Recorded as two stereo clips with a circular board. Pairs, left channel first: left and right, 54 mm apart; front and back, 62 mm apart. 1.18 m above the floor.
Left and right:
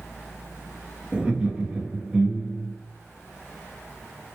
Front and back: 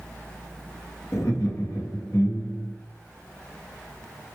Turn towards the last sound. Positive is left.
turn(degrees=-20)